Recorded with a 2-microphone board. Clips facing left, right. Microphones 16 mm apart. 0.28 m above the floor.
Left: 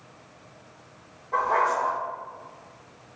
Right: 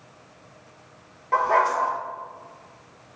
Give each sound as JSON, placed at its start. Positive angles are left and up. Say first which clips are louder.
{"t": 1.3, "sound": "a dog barking", "louder": "right 3 dB", "side_deg": -65, "distance_m": 1.6}